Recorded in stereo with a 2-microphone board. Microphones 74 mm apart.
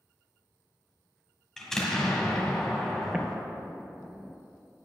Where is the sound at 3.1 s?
10° right (ahead or behind), 0.7 m.